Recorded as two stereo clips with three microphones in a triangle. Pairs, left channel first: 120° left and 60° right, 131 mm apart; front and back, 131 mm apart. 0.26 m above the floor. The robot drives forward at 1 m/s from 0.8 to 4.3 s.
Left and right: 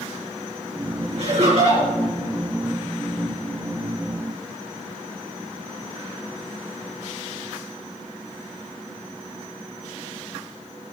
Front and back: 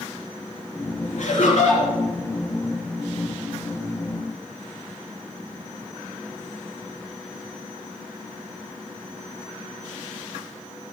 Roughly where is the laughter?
Ahead right.